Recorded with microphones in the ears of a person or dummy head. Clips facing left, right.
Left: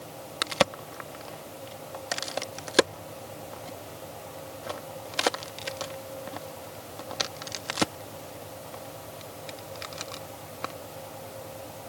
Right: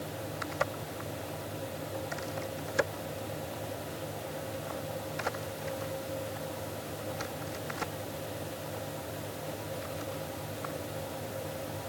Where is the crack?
80° left.